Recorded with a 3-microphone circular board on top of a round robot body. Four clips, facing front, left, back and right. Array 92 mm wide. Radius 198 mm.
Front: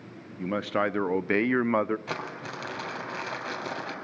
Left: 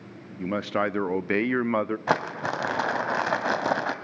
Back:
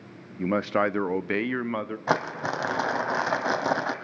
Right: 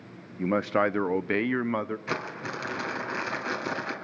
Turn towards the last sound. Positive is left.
turn(degrees=130)